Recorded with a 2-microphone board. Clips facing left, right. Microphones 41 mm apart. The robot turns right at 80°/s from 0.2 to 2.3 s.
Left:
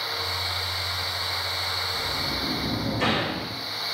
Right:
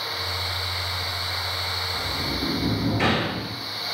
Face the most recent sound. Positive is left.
turn(degrees=-70)  # may be behind; listen again after turning